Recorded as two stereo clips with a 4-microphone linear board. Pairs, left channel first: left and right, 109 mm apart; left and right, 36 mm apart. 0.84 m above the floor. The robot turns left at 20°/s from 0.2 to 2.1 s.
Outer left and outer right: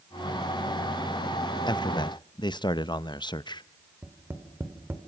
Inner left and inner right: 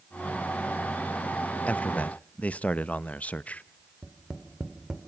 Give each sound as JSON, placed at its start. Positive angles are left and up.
{"t": 1.7, "sound": "a man speaking", "side_deg": 40, "distance_m": 0.6}
{"t": 4.0, "sound": "tapping", "side_deg": -20, "distance_m": 2.5}